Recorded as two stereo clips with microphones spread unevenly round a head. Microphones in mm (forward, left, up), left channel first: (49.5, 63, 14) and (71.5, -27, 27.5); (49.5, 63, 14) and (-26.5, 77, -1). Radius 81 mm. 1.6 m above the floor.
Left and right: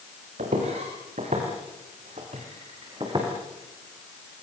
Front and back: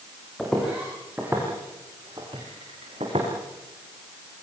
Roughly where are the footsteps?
Right.